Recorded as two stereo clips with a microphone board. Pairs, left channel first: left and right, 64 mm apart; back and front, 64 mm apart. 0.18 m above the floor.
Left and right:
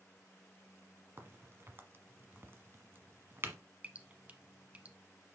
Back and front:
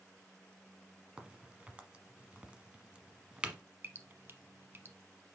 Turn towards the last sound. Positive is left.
turn(degrees=-35)